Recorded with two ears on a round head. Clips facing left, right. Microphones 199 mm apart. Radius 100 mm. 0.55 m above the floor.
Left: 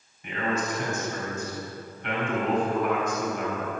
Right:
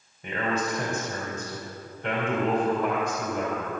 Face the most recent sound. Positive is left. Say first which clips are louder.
# right 1 dB
turn(degrees=-35)  # may be behind; listen again after turning